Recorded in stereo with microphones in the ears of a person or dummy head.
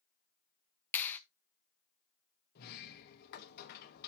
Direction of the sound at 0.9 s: 10° left (ahead or behind).